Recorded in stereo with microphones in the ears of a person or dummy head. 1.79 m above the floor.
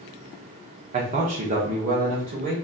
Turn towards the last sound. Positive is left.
turn(degrees=-40)  # may be behind; listen again after turning